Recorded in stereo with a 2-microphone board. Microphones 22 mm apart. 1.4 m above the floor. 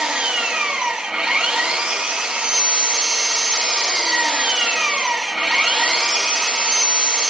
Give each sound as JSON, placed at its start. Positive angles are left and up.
{"t": 0.0, "sound": "an engine running", "side_deg": -55, "distance_m": 1.8}